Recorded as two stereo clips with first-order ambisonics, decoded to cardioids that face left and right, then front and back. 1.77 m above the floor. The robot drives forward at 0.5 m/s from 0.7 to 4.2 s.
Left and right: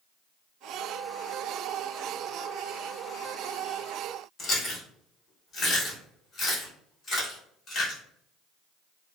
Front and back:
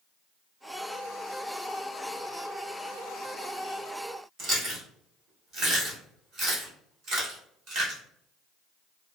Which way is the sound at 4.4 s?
145° left.